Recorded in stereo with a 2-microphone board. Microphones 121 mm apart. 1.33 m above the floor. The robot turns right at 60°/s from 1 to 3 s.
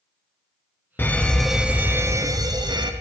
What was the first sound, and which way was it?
A fire alarm, 155° left.